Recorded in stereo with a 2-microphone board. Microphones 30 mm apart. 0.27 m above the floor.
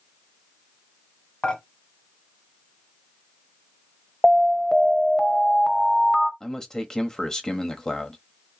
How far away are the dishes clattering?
About 1.3 m.